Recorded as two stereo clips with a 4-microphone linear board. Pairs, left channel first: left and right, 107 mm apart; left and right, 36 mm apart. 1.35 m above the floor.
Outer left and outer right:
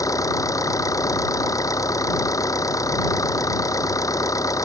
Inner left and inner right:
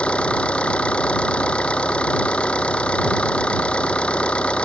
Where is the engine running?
30° left (ahead or behind).